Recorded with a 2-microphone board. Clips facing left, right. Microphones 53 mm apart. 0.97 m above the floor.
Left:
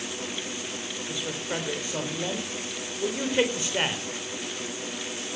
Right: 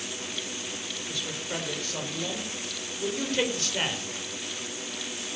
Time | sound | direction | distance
1.1 | a man speaking | 20° left (ahead or behind) | 3.5 m